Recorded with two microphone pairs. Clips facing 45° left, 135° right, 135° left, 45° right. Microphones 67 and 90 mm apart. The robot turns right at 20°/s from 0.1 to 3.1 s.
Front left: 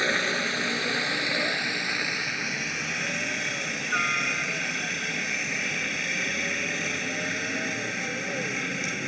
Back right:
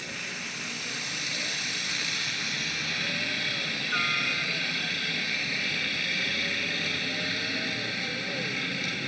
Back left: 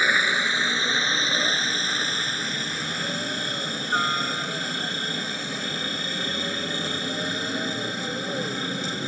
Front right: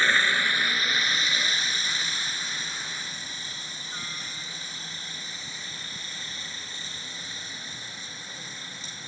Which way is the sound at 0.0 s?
60° left.